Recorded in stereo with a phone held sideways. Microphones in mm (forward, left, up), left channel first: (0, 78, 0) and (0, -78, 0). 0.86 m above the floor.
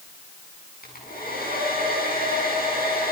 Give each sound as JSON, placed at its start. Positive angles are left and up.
{"t": 0.8, "sound": "a hair dryer", "side_deg": 70, "distance_m": 7.5}